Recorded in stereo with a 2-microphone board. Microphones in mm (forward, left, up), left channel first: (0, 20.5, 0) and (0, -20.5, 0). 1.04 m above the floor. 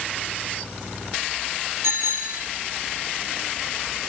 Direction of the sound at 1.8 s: 70° right (ahead or behind).